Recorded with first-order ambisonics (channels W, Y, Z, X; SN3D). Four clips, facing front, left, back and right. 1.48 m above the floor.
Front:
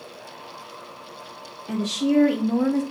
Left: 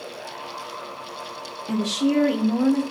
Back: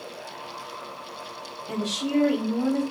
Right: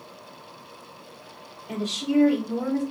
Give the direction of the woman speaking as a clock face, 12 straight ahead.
10 o'clock.